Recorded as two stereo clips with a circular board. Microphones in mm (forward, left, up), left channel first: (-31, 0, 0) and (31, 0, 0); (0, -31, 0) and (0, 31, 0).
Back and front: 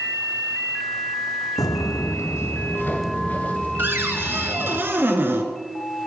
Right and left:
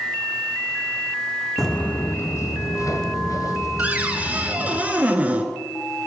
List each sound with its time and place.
1.6 s footsteps: 175° right, 0.6 m; by 4.8 s 110° right, 3.5 m
3.8 s a cupboard door: 35° left, 1.4 m